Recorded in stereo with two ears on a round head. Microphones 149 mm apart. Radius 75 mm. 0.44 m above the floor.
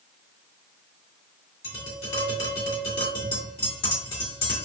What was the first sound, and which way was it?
Tapping, 35° left (ahead or behind).